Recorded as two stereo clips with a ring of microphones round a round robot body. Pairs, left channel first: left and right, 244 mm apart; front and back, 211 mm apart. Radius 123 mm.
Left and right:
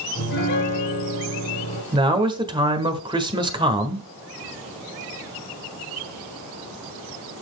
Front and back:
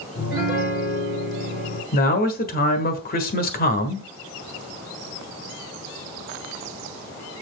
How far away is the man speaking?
About 1.4 m.